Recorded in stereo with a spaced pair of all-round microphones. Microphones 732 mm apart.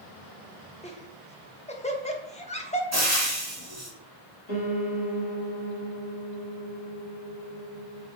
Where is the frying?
20° right (ahead or behind), 1.1 m.